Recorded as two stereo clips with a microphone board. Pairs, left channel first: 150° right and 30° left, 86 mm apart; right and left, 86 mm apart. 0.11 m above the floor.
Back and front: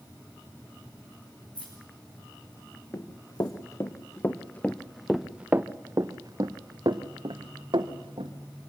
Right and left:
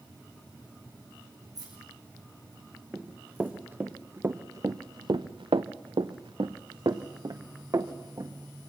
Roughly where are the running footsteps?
Behind.